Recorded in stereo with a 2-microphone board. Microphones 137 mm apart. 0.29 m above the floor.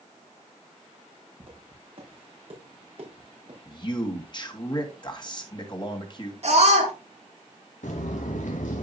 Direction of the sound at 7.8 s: 75° left (ahead or behind).